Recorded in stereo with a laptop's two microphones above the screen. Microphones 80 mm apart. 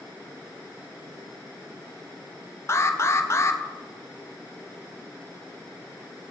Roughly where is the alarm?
Left.